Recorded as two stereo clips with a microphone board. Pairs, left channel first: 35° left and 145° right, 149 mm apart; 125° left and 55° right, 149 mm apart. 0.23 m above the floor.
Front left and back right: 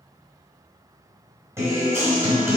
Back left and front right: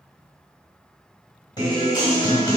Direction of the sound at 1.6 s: 160° left.